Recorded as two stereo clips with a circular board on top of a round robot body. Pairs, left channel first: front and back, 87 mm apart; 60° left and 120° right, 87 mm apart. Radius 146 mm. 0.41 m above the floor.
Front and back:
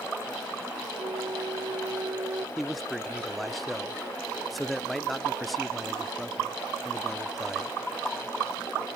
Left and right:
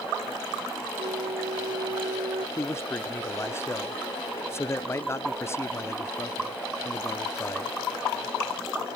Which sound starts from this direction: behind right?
A flute, at 1.0 s.